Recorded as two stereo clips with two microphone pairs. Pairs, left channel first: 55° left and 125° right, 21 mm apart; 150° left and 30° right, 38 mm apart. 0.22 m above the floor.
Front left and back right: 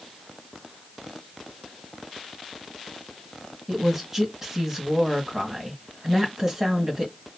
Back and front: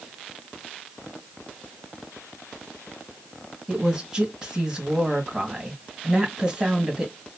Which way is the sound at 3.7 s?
75° right.